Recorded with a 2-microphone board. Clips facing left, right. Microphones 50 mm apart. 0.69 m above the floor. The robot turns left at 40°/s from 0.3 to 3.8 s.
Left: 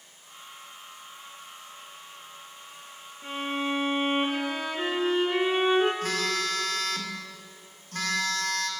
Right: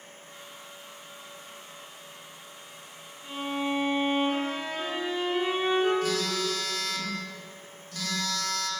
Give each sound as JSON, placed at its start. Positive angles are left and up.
{"t": 3.2, "sound": "a violin", "side_deg": 50, "distance_m": 6.0}
{"t": 6.0, "sound": "a phone buzzing", "side_deg": 55, "distance_m": 2.0}